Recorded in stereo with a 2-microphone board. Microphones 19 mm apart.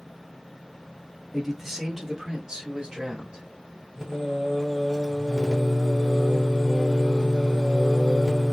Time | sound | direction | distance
1.3 | a man speaking | 5° right (ahead or behind) | 1.0 m
4.0 | singing | 35° right (ahead or behind) | 1.7 m